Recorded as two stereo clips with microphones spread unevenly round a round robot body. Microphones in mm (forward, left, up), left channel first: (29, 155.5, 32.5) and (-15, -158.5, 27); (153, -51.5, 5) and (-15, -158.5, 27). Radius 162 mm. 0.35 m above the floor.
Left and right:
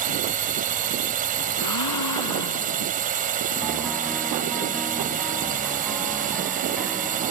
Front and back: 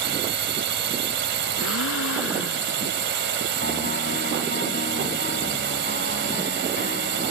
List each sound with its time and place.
0.0 s a drone: 160° right
1.6 s a gasp: 55° left
3.6 s a piano: 10° right